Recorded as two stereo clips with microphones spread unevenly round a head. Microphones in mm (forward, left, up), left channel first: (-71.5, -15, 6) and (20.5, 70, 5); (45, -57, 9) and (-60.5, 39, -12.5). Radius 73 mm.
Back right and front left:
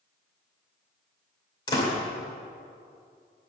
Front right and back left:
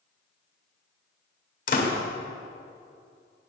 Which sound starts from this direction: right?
A door slam, at 1.7 s.